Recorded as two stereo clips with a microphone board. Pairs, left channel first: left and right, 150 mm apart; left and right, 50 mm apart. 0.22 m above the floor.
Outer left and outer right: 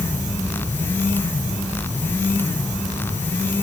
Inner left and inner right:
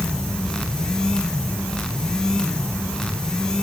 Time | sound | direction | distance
0.0 | an insect | 25° left (ahead or behind) | 4.5 m